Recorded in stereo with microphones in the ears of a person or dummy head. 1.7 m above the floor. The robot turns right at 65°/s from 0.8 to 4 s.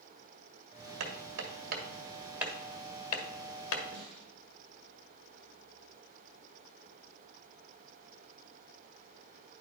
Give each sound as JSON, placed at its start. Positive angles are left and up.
{"t": 1.0, "sound": "hammering", "side_deg": -75, "distance_m": 1.9}
{"t": 3.9, "sound": "a snare drum", "side_deg": -50, "distance_m": 3.0}